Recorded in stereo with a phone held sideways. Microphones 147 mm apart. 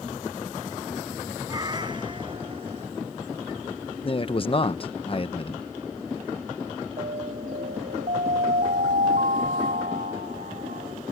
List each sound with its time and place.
1.5 s a cat meowing: 25° right (ahead or behind); by 2.9 s 50° right (ahead or behind)
4.0 s a man speaking: 40° left (ahead or behind)
7.0 s an alarm: 85° right